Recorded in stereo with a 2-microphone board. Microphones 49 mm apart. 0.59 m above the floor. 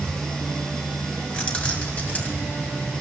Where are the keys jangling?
25° left (ahead or behind), 2.5 m; by 2.5 s 35° left (ahead or behind), 2.5 m.